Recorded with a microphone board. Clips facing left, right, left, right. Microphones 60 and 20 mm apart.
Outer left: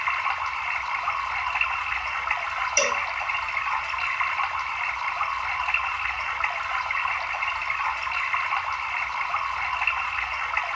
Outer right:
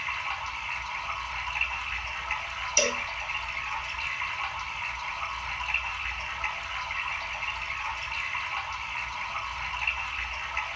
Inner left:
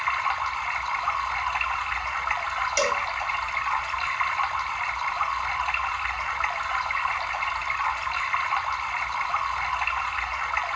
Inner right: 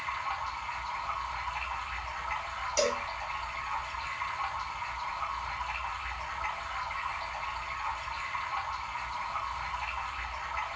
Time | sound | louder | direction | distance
0.0 | running water | outer left 7 dB, inner left 9 dB | 70° left (ahead or behind) | 0.9 m
2.8 | a cowbell | outer left 2 dB, inner left 4 dB | 30° left (ahead or behind) | 1.1 m